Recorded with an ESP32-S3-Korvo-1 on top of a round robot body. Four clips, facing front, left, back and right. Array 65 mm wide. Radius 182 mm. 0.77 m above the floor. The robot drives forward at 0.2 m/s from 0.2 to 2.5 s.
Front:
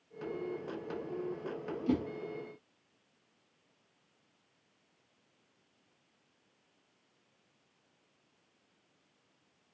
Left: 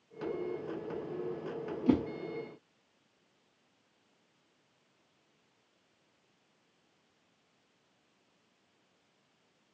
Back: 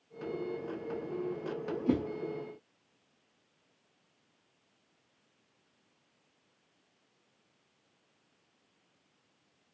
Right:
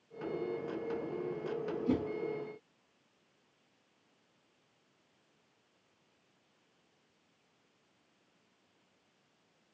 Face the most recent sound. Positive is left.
turn(degrees=130)